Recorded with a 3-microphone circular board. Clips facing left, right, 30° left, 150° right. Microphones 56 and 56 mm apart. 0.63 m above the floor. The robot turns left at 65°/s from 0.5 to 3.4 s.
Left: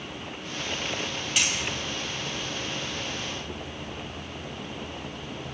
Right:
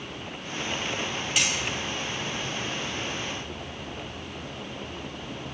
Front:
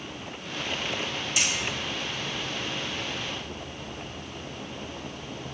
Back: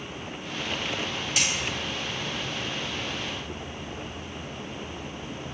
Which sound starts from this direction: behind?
Hammering, at 1.4 s.